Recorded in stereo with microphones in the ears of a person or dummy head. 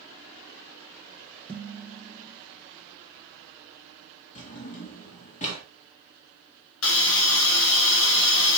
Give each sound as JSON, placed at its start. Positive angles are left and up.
{"t": 1.5, "sound": "dishes clattering", "side_deg": 5, "distance_m": 1.1}
{"t": 4.3, "sound": "a drawer", "side_deg": 35, "distance_m": 1.8}
{"t": 6.8, "sound": "a hiss", "side_deg": 75, "distance_m": 1.1}